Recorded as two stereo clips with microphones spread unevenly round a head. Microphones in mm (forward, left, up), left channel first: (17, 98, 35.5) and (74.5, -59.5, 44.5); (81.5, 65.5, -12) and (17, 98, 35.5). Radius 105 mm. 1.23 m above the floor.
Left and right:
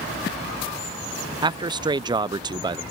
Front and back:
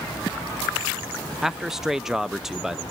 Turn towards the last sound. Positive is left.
turn(degrees=-25)